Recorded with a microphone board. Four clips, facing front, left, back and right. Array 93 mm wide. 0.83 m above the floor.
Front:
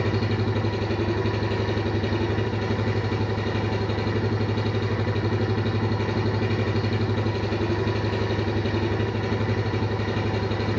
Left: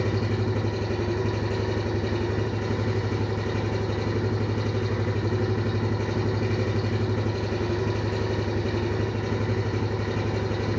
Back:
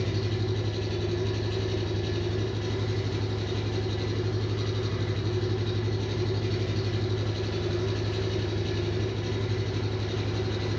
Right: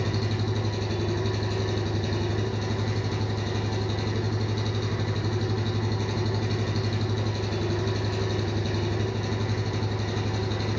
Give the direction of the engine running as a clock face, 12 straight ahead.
11 o'clock.